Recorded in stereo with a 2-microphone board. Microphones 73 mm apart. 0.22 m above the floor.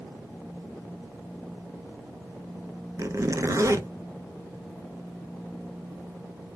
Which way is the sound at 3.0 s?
45° right (ahead or behind).